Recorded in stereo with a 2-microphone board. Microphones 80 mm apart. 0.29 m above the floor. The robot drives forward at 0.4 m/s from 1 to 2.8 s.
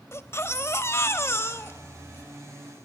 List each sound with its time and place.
0.1 s a baby crying: 35° left (ahead or behind), 1.2 m; by 2.2 s 30° left (ahead or behind), 1.3 m